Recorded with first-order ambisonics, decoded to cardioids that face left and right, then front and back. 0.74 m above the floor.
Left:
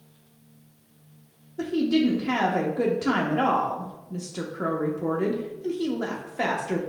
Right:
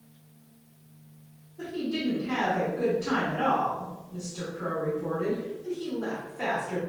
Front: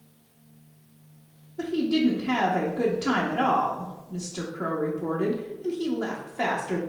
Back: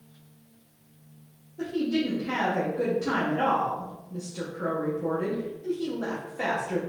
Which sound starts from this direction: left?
A woman speaking, at 1.6 s.